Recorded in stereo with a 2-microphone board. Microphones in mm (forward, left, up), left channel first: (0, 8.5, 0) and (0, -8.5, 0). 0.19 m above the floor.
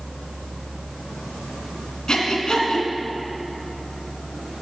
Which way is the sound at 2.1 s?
45° left (ahead or behind).